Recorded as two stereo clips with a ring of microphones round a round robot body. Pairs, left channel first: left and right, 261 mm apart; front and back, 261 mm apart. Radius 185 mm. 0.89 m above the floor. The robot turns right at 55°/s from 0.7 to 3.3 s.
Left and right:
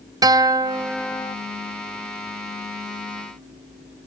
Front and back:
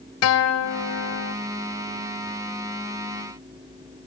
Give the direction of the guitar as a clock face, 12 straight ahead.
1 o'clock.